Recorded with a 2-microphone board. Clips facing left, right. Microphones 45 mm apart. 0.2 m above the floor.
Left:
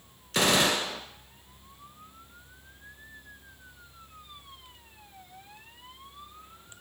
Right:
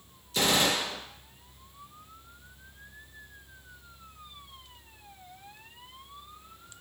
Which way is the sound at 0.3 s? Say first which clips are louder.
Left 2 dB; 65° left (ahead or behind).